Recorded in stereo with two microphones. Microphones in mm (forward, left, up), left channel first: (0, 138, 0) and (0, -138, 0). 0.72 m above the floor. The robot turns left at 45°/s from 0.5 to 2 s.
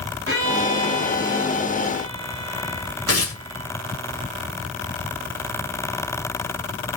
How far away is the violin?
About 5 m.